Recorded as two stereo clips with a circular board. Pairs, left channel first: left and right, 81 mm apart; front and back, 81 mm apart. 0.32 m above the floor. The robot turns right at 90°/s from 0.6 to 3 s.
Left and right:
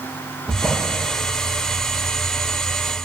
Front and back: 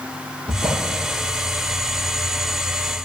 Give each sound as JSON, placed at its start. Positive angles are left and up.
{"t": 0.5, "sound": "a drawer", "azimuth_deg": 175, "distance_m": 3.0}